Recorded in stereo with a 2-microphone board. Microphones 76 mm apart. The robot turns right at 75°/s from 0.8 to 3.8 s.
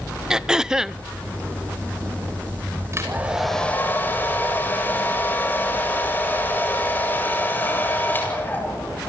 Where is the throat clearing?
10° right (ahead or behind), 0.7 m; by 1.0 s 5° left (ahead or behind), 0.7 m.